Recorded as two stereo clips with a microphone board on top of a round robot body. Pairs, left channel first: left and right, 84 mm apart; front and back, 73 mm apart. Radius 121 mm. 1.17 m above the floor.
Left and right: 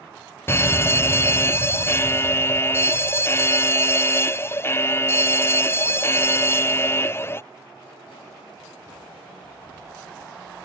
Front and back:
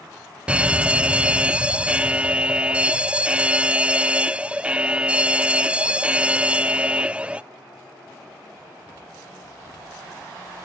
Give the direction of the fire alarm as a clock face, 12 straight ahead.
8 o'clock.